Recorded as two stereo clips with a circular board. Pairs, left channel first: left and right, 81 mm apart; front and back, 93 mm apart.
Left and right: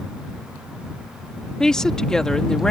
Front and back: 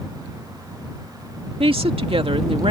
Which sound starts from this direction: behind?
A woman speaking, at 1.6 s.